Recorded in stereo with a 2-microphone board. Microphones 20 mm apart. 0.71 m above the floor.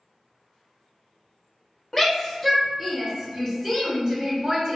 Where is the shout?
10° left (ahead or behind), 1.4 m; by 4.8 s 35° right (ahead or behind), 2.5 m.